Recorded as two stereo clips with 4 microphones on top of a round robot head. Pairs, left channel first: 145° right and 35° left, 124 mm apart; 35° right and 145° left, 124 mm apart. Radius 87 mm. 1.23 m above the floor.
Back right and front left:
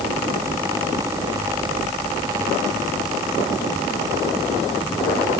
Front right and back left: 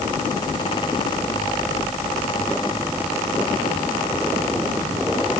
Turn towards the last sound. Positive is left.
No sound to turn to.